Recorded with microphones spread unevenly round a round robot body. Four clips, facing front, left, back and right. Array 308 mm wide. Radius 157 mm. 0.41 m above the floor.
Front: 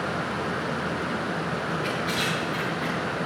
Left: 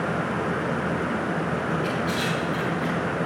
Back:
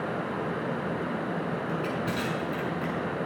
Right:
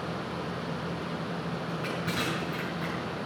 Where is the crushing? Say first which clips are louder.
Left 7 dB, front 2 dB; straight behind, 5 m.